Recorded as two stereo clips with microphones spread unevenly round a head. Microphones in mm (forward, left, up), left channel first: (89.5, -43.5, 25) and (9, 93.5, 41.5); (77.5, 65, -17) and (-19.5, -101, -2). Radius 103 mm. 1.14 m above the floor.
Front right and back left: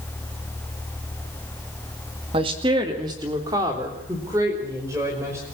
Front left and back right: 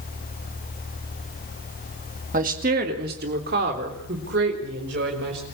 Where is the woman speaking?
175° right, 2 m; by 5.4 s 165° right, 6 m.